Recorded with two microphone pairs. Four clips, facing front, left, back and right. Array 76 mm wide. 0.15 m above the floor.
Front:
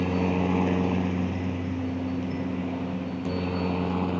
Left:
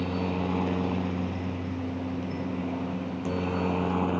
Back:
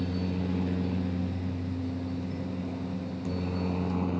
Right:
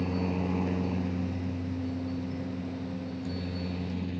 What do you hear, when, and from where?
0.0 s a helicopter: 15° left; by 4.2 s 65° left